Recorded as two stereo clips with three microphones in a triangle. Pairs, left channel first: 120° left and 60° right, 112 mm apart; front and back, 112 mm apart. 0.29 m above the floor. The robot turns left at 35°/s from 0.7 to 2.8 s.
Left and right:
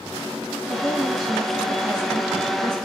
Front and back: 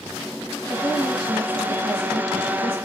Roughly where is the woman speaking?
Behind right.